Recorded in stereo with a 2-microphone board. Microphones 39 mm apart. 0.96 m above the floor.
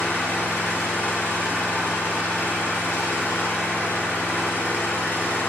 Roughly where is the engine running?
Left.